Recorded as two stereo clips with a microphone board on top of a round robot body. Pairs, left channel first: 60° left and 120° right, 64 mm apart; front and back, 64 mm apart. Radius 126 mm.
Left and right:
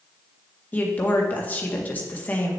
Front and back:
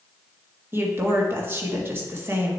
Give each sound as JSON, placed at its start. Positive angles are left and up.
{"t": 0.7, "sound": "a woman speaking", "azimuth_deg": 125, "distance_m": 1.8}